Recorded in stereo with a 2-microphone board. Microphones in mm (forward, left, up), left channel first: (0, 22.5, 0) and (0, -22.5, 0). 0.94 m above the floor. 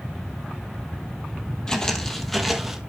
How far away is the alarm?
I don't hear an alarm.